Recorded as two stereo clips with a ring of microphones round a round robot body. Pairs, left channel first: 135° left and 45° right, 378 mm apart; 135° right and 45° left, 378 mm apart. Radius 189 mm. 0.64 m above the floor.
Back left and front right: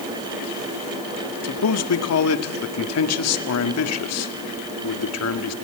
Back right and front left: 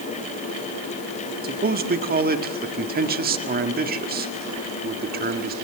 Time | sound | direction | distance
1.4 | a man speaking | 105° left | 1.7 m